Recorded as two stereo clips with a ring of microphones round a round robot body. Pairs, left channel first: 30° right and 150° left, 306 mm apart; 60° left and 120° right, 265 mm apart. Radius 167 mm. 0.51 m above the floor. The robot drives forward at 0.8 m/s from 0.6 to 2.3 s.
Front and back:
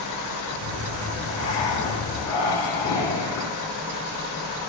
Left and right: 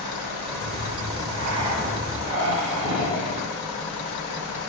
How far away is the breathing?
About 3.5 m.